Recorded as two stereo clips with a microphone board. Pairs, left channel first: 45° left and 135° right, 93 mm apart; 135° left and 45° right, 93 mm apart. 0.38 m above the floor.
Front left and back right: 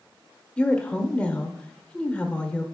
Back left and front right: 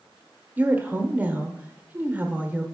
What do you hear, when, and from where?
0.6 s a woman speaking: 10° right, 0.9 m